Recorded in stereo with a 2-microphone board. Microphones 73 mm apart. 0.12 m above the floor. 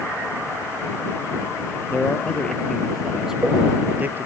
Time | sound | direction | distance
1.9 | a man speaking | 20° left (ahead or behind) | ?